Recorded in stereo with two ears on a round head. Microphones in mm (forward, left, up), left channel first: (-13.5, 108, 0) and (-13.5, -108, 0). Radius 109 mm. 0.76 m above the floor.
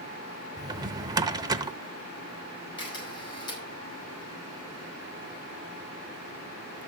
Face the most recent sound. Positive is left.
turn(degrees=20)  # may be behind; listen again after turning